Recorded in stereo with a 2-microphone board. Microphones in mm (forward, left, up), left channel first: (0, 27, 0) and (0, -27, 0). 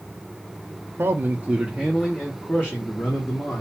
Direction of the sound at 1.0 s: 55° right (ahead or behind).